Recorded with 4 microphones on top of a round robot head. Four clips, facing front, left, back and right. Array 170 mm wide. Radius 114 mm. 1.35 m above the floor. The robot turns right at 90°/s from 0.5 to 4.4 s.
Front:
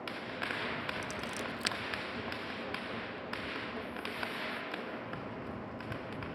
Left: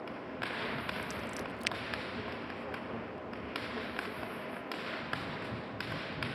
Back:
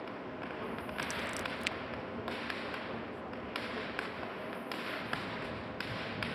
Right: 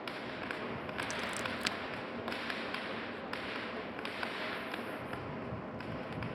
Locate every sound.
1.0 s scissors: 105° right; by 1.8 s 35° right